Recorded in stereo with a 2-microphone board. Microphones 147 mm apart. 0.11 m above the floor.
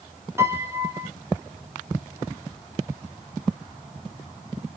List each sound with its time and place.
0.4 s a piano: 15° right (ahead or behind), 0.8 m